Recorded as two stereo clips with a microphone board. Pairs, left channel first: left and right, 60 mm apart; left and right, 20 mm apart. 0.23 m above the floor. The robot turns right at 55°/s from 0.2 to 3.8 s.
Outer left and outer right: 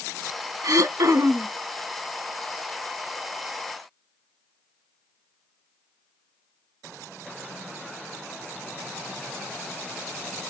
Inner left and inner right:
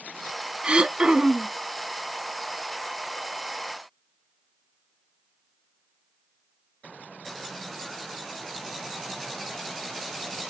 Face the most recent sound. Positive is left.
turn(degrees=85)